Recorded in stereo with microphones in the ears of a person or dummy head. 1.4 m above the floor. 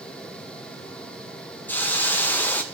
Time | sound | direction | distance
1.7 | a hiss | 5° left (ahead or behind) | 0.5 m